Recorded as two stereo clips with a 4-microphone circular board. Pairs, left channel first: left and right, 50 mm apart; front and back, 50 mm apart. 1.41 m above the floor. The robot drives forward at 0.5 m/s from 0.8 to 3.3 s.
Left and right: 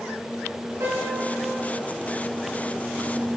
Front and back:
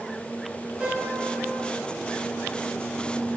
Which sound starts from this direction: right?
A piano, at 0.8 s.